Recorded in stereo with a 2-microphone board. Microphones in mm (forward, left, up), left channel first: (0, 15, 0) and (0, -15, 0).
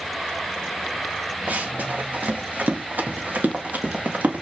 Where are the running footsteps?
65° right (ahead or behind), 2 m; by 4.4 s 75° right (ahead or behind), 3 m.